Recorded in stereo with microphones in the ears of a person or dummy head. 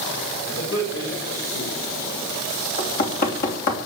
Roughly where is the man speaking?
Left.